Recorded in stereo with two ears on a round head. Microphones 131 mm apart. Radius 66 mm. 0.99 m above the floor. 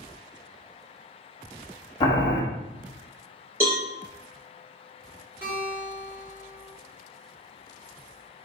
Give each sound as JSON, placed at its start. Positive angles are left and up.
{"t": 2.0, "sound": "boiling", "side_deg": 25, "distance_m": 1.2}
{"t": 3.6, "sound": "a cowbell", "side_deg": -20, "distance_m": 3.5}
{"t": 5.4, "sound": "a guitar", "side_deg": -15, "distance_m": 3.0}